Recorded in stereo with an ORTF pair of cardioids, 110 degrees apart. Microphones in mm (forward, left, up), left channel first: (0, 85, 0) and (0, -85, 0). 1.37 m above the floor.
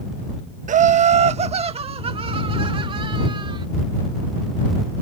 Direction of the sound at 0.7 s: 45° right.